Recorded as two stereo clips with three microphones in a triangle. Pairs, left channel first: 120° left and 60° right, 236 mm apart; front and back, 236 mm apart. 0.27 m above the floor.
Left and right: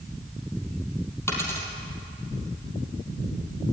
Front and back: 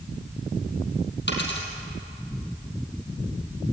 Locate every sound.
1.3 s a dropped coin: 40° left, 4 m